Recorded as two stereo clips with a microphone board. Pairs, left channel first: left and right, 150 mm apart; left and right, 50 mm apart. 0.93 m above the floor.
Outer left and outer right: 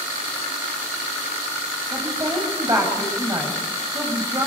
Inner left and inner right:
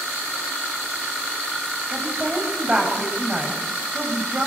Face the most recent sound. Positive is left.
turn(degrees=-25)  # may be behind; listen again after turning